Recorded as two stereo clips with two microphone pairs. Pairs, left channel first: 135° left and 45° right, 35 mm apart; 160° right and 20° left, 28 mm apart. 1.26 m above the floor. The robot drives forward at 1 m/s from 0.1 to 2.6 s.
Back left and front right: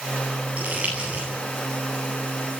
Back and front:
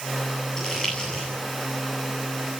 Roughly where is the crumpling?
Right.